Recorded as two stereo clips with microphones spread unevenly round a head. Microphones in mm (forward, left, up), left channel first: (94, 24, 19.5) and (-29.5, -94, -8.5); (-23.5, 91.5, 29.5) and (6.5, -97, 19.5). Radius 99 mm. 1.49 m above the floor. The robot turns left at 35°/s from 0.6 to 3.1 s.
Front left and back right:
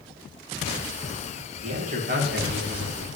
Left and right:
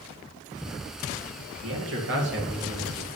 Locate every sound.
1.6 s a man speaking: 85° right, 2 m; by 3.1 s 135° right, 2 m